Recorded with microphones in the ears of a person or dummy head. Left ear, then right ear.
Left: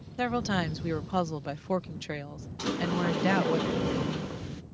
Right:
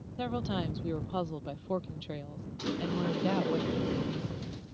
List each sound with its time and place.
0.2 s a woman speaking: 65° left (ahead or behind)
2.6 s a sliding door: 35° left (ahead or behind)